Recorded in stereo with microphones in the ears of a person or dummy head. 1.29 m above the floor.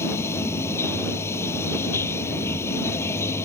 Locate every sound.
0.0 s running water: 15° left (ahead or behind)